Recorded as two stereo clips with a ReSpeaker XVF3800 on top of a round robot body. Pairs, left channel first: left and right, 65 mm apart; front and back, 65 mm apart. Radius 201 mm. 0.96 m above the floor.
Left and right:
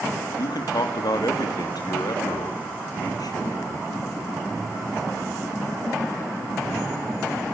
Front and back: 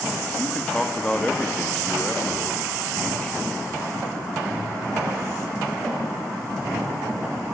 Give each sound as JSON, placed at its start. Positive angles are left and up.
{"t": 0.4, "sound": "a man speaking", "azimuth_deg": 75, "distance_m": 3.0}